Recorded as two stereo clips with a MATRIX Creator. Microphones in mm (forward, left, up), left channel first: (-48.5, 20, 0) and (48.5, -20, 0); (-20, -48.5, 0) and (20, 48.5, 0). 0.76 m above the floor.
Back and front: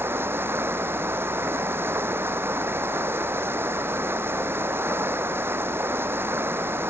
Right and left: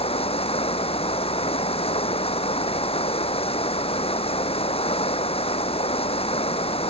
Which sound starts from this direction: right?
Running water, at 0.0 s.